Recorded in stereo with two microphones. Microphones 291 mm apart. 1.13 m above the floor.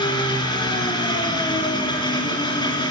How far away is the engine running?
About 4.5 m.